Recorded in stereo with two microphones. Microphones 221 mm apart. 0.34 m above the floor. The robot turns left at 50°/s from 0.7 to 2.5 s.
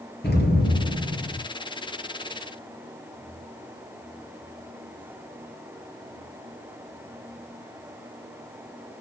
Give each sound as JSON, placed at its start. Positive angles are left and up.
{"t": 0.2, "sound": "an explosion", "azimuth_deg": 55, "distance_m": 4.0}